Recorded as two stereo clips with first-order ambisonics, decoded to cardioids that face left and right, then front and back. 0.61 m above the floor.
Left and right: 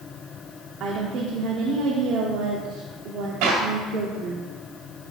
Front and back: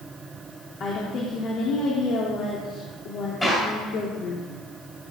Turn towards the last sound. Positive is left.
turn(degrees=-85)